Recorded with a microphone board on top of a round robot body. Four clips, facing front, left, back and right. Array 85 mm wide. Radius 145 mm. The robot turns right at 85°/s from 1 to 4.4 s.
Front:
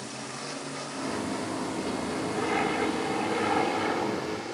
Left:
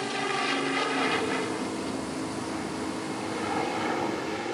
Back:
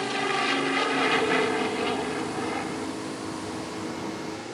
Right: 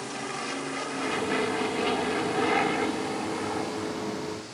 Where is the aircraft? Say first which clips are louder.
Left 5 dB, back 12 dB; 155° left; by 4.5 s 85° left.